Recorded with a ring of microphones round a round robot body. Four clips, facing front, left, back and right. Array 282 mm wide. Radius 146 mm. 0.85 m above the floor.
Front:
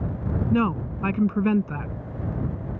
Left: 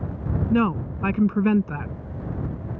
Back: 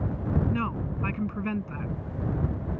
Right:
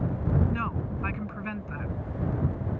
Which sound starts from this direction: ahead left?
A woman speaking, at 0.5 s.